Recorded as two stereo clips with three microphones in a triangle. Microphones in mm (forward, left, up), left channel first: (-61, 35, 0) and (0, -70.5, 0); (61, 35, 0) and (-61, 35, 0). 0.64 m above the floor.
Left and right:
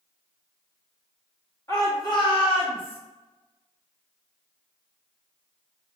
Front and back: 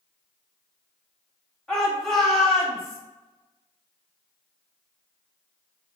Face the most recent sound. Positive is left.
turn(degrees=85)